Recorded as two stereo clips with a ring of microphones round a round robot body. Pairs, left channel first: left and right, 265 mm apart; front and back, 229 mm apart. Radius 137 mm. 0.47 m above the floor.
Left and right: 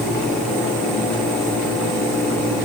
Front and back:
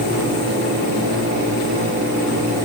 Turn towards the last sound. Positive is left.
No sound to turn to.